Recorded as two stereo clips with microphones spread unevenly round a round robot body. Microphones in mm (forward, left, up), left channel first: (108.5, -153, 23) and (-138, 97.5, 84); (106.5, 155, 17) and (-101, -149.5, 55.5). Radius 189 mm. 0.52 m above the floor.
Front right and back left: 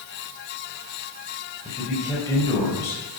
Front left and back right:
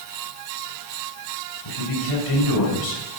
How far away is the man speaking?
About 3.5 m.